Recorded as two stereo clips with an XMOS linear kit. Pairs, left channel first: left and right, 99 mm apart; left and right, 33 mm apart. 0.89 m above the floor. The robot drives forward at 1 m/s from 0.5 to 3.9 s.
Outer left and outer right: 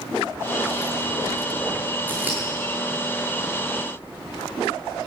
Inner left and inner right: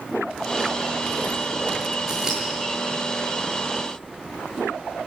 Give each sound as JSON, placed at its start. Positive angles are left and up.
{"t": 2.1, "sound": "scissors", "side_deg": -20, "distance_m": 7.5}